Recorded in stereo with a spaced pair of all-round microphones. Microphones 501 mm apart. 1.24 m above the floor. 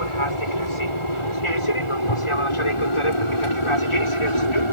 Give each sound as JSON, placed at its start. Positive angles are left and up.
{"t": 0.0, "sound": "an aircraft", "side_deg": 70}